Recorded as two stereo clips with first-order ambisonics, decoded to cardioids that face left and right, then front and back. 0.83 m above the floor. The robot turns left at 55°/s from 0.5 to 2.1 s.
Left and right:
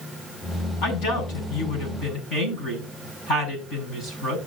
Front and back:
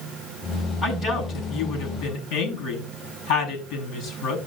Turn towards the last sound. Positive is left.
turn(degrees=20)